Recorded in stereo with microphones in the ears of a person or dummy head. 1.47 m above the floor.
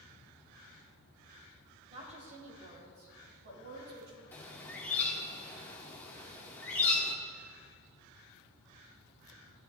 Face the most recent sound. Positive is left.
turn(degrees=10)  # may be behind; listen again after turning